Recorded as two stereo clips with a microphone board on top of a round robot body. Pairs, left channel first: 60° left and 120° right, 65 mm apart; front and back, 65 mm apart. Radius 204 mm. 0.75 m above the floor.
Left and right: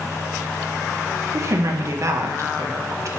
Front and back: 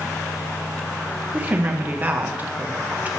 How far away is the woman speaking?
About 1.0 m.